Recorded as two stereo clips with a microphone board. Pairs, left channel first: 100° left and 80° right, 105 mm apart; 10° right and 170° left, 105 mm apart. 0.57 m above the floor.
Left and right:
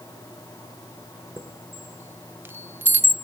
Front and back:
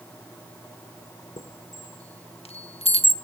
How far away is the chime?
About 0.9 m.